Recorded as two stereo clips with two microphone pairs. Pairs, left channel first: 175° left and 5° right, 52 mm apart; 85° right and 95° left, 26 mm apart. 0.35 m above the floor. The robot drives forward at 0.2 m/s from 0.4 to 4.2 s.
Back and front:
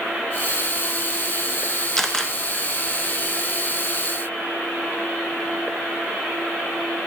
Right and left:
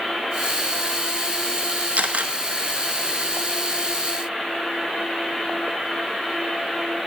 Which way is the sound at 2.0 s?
90° left.